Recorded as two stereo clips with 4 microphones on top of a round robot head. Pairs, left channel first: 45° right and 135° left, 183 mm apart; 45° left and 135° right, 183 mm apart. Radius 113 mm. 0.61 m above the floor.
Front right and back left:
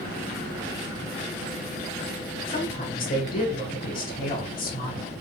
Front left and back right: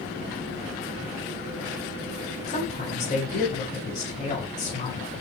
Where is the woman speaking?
5° right, 4 m.